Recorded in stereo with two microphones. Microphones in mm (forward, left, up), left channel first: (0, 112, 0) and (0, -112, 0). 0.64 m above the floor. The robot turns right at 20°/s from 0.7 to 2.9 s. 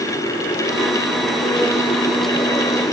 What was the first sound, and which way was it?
Only background noise.